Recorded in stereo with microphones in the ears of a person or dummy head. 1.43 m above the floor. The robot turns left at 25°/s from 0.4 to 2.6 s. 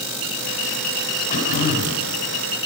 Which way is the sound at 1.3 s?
60° left (ahead or behind).